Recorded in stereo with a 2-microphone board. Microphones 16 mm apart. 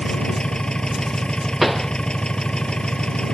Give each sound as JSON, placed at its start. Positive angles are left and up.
{"t": 0.0, "sound": "an engine running", "side_deg": 75}
{"t": 1.6, "sound": "a pop", "side_deg": -15}